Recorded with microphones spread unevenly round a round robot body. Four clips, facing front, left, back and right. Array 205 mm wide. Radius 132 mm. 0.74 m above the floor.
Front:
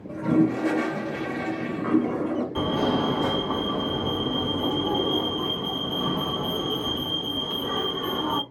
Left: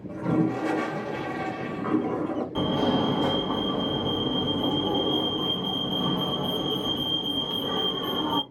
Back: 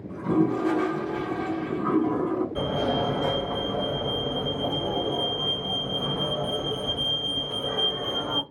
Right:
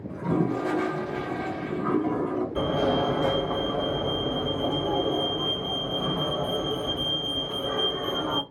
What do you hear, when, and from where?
0.1 s a toilet flushing: 60° left, 1.7 m
2.5 s a fire alarm: 75° left, 2 m